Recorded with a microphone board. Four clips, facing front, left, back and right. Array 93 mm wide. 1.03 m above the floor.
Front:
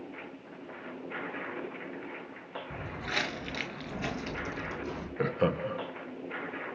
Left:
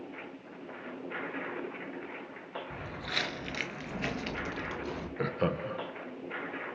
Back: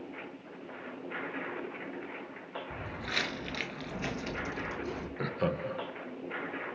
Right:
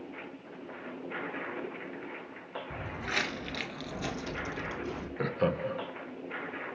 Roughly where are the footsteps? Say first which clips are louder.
Right 4 dB, front 2 dB; right.